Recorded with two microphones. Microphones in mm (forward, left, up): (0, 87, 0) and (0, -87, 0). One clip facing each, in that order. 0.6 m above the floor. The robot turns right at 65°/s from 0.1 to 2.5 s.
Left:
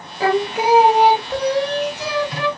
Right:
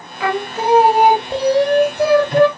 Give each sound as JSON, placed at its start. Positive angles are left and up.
{"t": 0.2, "sound": "singing", "azimuth_deg": 140, "distance_m": 0.5}